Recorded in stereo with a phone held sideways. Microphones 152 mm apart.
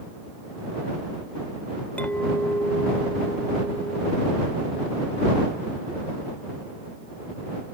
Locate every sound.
2.0 s a clink: 10° left (ahead or behind)